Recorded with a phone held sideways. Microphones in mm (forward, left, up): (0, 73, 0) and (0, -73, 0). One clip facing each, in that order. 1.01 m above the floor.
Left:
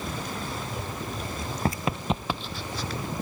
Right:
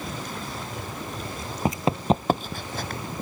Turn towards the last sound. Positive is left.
turn(degrees=-55)  # may be behind; listen again after turning